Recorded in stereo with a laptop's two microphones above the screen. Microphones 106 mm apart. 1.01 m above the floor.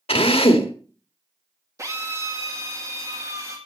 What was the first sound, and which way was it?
A drill, 70° left (ahead or behind).